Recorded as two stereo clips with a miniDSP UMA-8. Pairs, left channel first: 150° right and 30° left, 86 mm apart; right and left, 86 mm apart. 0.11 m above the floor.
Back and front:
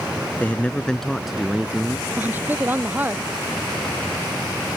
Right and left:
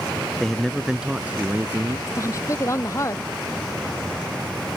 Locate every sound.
0.4 s a man speaking: 165° right; by 2.0 s 75° left
2.1 s a woman speaking: 40° right